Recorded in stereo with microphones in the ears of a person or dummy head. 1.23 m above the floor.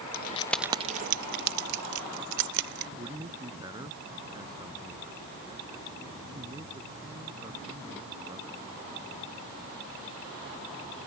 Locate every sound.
0.1 s keys jangling: 55° left (ahead or behind); by 2.9 s 70° right (ahead or behind)
3.0 s a man speaking: 20° right (ahead or behind)